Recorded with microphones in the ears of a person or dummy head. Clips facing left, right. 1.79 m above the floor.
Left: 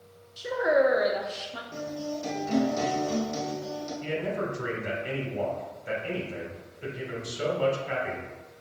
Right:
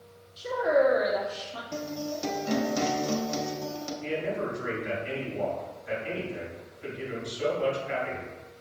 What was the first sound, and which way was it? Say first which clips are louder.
A woman speaking: even; 15° left (ahead or behind).